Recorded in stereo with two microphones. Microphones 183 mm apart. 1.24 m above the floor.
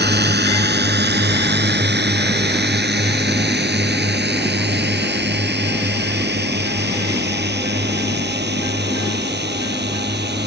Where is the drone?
65° right (ahead or behind); by 10.5 s 70° right (ahead or behind).